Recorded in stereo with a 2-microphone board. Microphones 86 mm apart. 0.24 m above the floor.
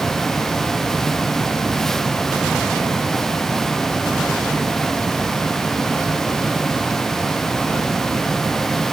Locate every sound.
Only background noise.